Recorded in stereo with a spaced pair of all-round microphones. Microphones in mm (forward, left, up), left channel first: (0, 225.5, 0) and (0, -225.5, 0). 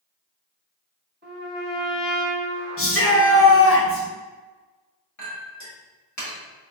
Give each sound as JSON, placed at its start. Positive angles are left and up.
{"t": 1.2, "sound": "a trumpet", "side_deg": -25, "distance_m": 1.6}
{"t": 2.8, "sound": "a shout", "side_deg": 30, "distance_m": 0.9}
{"t": 5.2, "sound": "a clink", "side_deg": 40, "distance_m": 1.2}